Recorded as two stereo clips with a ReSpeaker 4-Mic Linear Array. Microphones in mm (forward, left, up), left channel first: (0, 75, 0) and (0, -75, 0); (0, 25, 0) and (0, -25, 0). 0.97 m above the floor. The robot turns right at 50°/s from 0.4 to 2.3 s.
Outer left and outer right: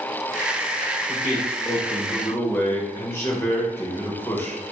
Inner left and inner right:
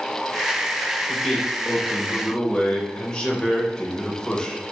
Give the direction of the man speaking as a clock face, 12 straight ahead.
1 o'clock.